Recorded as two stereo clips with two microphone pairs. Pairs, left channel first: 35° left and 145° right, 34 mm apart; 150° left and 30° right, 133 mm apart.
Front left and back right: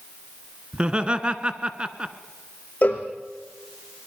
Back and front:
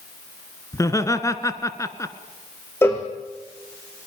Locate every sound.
0.7 s laughter: 165° right, 1.4 m
2.8 s a cowbell: 75° left, 3 m